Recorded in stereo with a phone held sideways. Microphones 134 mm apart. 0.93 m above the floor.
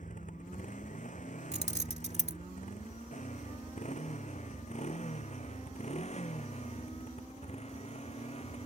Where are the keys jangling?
55° right (ahead or behind).